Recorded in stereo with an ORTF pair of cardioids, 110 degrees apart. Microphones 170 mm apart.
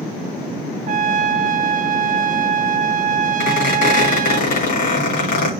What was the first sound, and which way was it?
A trumpet, 50° right.